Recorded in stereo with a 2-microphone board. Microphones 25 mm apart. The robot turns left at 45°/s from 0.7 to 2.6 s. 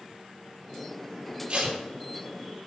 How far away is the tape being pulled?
About 3.5 m.